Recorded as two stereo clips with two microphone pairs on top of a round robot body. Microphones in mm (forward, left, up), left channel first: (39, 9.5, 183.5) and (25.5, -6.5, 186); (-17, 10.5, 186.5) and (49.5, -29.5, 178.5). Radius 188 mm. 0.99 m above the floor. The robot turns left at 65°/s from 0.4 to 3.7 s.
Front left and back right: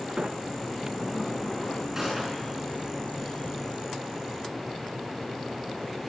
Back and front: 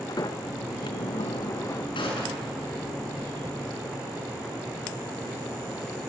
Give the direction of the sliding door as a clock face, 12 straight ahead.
6 o'clock.